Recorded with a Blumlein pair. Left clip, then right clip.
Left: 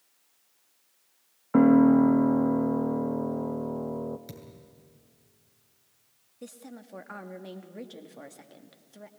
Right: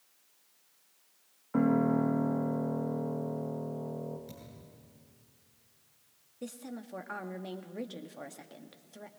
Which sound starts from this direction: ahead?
A woman speaking, at 6.4 s.